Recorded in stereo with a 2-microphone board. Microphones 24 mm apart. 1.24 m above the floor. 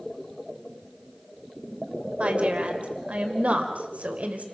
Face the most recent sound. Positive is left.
turn(degrees=-75)  # may be behind; listen again after turning